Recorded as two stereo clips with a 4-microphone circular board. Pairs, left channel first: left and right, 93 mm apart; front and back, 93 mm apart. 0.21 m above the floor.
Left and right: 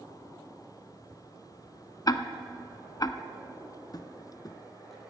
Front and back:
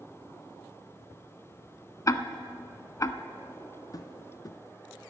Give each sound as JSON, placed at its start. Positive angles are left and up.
{"t": 2.1, "sound": "ticking", "azimuth_deg": 50, "distance_m": 0.6}
{"t": 3.9, "sound": "tapping", "azimuth_deg": 50, "distance_m": 0.6}